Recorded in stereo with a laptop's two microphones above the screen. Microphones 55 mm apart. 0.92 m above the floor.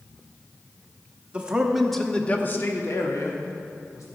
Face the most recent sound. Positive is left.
turn(degrees=80)